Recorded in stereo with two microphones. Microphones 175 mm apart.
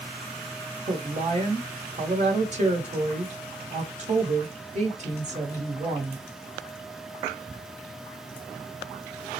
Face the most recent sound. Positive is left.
turn(degrees=-40)  # may be behind; listen again after turning